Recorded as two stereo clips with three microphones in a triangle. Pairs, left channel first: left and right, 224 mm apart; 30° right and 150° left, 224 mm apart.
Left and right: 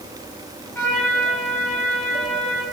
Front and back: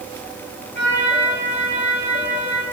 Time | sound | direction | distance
0.8 | a trumpet | 10° left | 6.5 m